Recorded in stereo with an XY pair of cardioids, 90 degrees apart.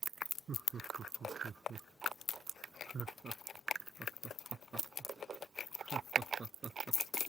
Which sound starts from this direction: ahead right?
Laughter, at 0.5 s.